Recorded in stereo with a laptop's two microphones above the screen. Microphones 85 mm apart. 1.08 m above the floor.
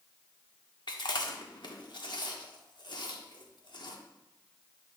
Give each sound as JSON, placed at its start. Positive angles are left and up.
{"t": 0.9, "sound": "chewing", "side_deg": 65, "distance_m": 1.1}